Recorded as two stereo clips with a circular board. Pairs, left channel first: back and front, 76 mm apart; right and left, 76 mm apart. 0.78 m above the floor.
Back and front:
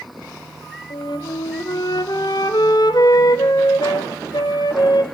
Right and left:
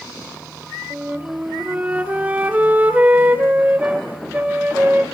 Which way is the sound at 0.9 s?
160° left.